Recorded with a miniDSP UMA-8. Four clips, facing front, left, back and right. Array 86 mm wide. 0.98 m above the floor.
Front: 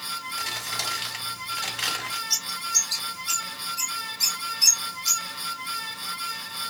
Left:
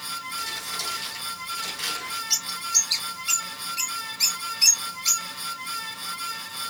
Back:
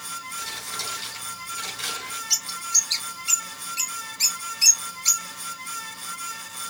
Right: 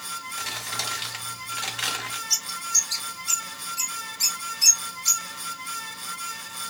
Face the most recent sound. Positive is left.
turn(degrees=160)